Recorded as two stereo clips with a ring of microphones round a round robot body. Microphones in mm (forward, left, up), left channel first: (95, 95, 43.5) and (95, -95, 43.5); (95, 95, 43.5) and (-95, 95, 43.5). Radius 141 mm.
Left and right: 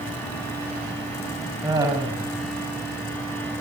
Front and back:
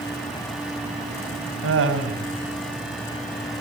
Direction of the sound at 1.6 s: 170° right.